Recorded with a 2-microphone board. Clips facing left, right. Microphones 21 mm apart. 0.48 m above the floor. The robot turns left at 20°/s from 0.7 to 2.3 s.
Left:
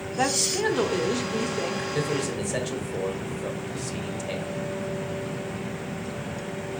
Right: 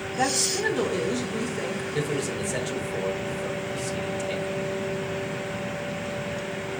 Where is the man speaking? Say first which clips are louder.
Right 1 dB; 5° left (ahead or behind), 1.7 m; by 4.5 s 10° left (ahead or behind), 1.7 m.